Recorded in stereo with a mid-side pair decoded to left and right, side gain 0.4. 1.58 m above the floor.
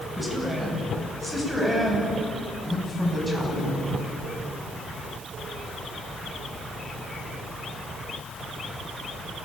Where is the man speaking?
10° right, 9 m; by 4.0 s straight ahead, 12 m.